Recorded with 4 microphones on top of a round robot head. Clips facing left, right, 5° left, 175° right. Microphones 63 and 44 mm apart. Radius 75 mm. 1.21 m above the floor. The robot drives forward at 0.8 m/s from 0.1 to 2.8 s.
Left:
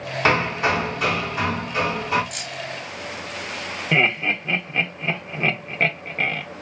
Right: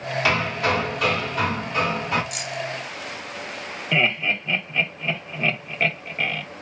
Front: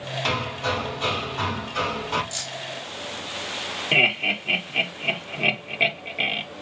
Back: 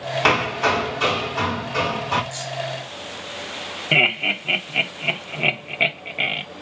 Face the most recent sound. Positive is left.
turn(degrees=120)